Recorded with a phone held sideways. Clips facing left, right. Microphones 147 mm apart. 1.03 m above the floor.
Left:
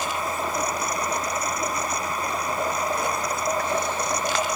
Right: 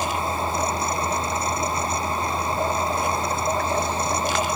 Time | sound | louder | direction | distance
0.0 | a fan | right 2 dB | 30° right (ahead or behind) | ?